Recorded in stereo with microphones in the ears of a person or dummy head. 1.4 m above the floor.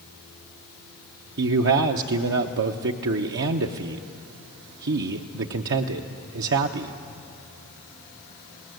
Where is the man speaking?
70° right (ahead or behind), 0.9 m.